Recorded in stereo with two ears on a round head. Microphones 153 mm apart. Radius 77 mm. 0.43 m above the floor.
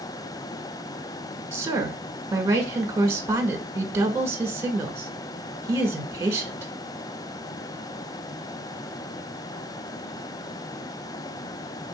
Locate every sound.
1.5 s a woman speaking: 15° right (ahead or behind), 1.4 m